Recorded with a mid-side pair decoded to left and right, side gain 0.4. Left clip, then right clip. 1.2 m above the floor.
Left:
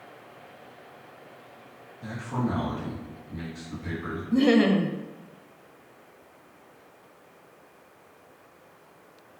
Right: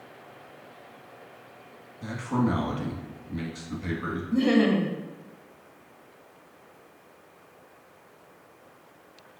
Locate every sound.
2.0 s a man speaking: 65° right, 1.4 m
4.3 s laughter: 30° left, 0.6 m